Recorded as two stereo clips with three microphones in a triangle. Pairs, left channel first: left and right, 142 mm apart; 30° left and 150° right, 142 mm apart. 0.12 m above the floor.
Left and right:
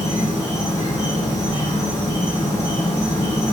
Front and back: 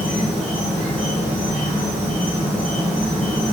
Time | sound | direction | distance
0.0 | an insect | 90° left | 1.1 m